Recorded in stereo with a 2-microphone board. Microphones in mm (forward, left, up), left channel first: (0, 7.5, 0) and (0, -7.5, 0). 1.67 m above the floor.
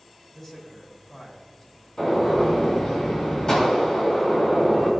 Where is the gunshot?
45° left (ahead or behind), 5.5 m.